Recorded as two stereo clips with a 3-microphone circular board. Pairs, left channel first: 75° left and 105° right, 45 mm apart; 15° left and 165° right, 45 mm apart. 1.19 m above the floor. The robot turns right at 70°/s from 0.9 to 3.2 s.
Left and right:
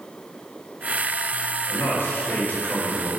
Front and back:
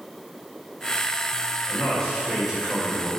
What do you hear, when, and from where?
1.7 s a man speaking: 65° left, 4.5 m; by 3.1 s 165° left, 4.5 m